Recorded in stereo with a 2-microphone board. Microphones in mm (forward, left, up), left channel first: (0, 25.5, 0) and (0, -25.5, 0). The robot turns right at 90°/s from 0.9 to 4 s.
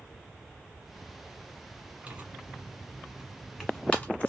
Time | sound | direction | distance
2.1 | tearing paper | 25° right (ahead or behind) | 1.5 m